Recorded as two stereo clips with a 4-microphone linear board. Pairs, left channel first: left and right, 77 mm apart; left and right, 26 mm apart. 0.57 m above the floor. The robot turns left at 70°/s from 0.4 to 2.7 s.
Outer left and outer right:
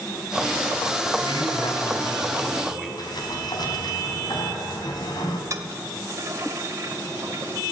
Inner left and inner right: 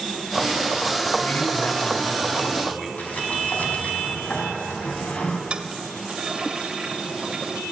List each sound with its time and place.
1.2 s a man speaking: 105° left, 5 m; by 2.9 s straight ahead, 5 m
3.0 s a sliding door: 65° left (ahead or behind), 4.5 m
5.5 s a toilet flushing: 40° right (ahead or behind), 1.5 m